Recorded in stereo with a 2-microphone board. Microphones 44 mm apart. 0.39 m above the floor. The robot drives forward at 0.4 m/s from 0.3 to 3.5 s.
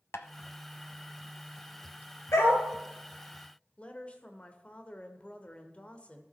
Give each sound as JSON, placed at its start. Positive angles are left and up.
{"t": 0.1, "sound": "tapping", "side_deg": 70, "distance_m": 0.7}
{"t": 2.3, "sound": "a dog barking", "side_deg": 80, "distance_m": 1.8}
{"t": 3.8, "sound": "a woman speaking", "side_deg": 25, "distance_m": 0.9}